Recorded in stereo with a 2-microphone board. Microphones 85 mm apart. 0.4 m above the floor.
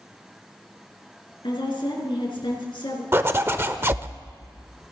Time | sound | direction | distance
1.4 | a woman speaking | 65° left (ahead or behind) | 4.5 m
3.1 | a zipper | 30° right (ahead or behind) | 0.8 m